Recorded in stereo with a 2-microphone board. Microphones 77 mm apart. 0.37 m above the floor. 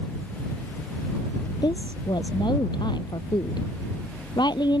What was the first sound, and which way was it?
A woman speaking, 75° left (ahead or behind).